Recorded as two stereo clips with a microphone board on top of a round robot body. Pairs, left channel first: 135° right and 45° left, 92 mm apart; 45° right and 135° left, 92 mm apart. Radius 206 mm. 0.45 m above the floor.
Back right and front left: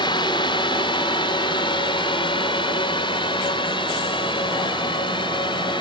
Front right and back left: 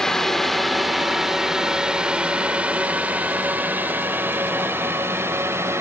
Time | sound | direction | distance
0.0 | a drone | 130° right | ?